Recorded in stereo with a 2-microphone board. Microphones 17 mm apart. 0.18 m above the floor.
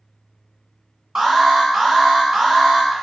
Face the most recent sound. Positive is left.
turn(degrees=-35)  # may be behind; listen again after turning